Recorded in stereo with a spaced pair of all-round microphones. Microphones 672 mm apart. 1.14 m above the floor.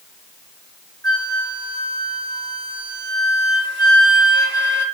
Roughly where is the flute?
Right.